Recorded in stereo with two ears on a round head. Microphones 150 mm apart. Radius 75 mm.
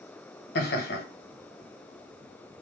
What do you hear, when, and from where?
0.6 s laughter: 60° left (ahead or behind), 1.2 m